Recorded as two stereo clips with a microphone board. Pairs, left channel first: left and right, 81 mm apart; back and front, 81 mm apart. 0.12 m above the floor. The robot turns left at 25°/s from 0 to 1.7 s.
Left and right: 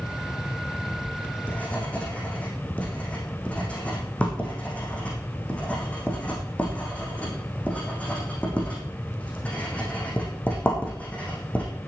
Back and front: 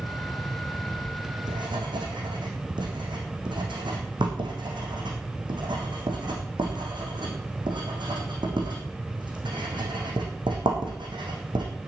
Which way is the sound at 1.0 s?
35° left.